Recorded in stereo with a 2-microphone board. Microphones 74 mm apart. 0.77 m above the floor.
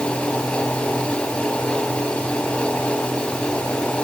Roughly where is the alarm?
No alarm in this recording.